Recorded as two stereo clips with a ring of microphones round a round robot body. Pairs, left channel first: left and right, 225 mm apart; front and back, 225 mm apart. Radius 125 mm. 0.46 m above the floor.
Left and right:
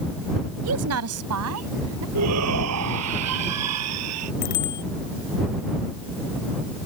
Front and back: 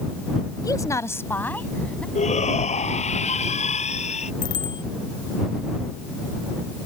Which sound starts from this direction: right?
A woman speaking, at 0.6 s.